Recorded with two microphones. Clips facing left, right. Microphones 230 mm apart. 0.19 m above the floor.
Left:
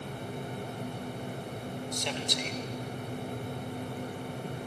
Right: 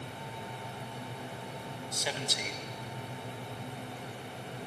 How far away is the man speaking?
About 1.0 m.